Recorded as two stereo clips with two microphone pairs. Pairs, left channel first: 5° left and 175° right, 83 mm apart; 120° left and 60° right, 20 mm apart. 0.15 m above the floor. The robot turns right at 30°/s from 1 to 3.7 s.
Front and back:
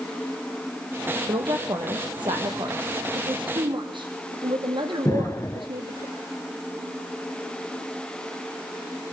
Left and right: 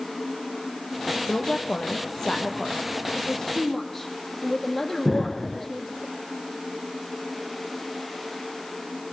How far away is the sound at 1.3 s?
About 4 m.